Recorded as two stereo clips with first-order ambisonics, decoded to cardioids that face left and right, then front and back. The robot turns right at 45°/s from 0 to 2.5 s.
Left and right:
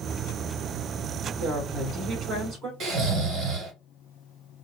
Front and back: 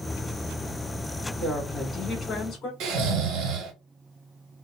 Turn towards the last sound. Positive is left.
turn(degrees=-145)